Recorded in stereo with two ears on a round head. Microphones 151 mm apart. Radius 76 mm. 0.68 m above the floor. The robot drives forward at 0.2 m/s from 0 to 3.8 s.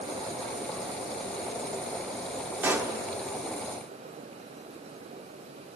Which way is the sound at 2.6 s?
15° right (ahead or behind).